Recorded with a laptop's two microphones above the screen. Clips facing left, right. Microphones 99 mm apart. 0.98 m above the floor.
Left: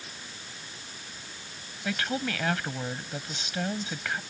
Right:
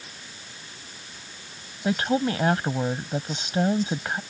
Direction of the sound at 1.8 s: 30° right (ahead or behind).